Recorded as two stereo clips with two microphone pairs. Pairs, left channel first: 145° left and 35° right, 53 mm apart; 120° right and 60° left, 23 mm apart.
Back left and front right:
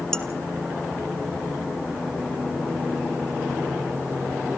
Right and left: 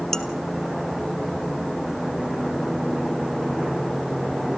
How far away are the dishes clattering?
About 0.9 m.